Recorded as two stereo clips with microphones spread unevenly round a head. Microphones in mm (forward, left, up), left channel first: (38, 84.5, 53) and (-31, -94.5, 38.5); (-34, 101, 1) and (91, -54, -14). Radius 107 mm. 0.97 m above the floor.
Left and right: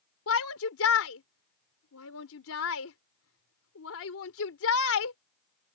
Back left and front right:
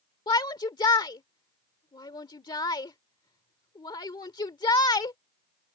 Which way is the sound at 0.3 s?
60° left.